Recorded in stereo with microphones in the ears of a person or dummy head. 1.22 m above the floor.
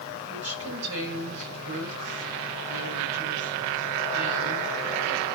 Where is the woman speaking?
65° right (ahead or behind), 9 m.